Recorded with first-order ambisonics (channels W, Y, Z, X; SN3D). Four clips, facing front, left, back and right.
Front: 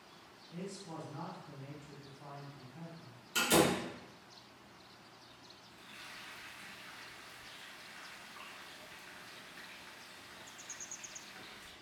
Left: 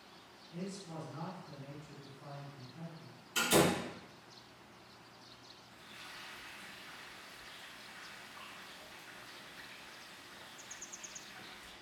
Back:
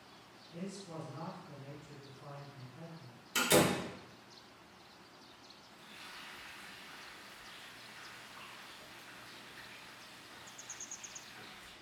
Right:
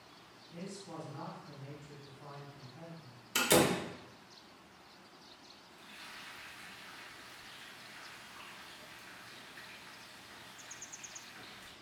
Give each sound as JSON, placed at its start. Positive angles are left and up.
{"t": 0.5, "sound": "a man speaking", "azimuth_deg": -30, "distance_m": 1.9}
{"t": 3.4, "sound": "a door slam", "azimuth_deg": -100, "distance_m": 0.8}
{"t": 5.7, "sound": "frying", "azimuth_deg": -50, "distance_m": 1.8}